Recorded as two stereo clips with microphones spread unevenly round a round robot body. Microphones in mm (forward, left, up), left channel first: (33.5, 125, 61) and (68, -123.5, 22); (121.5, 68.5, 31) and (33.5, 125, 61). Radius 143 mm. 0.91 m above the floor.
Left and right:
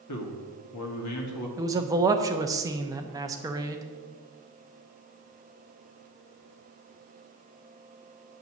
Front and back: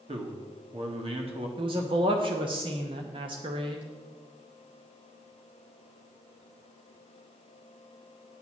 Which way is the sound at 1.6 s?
155° right.